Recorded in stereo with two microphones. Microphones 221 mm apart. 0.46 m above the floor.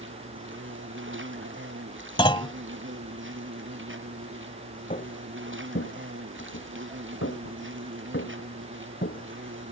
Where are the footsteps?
35° left (ahead or behind); by 9.7 s 40° left (ahead or behind).